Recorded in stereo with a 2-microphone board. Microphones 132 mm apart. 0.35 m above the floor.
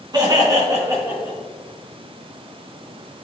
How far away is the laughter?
About 4 m.